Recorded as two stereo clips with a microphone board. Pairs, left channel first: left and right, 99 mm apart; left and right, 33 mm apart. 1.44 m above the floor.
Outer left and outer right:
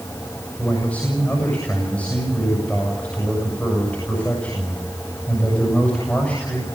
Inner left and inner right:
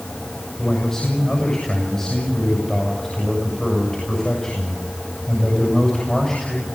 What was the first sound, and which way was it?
A man speaking, 15° left (ahead or behind).